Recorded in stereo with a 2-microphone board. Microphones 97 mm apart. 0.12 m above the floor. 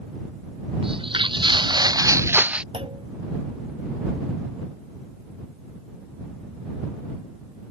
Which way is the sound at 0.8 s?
65° right (ahead or behind).